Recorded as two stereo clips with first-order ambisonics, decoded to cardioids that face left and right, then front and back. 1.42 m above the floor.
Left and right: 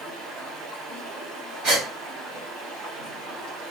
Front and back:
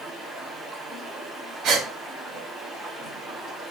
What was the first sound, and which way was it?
Running water, 80° right.